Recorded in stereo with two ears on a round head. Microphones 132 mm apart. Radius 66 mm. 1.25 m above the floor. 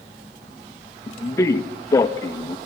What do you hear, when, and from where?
1.1 s a man speaking: 20° left (ahead or behind), 1.4 m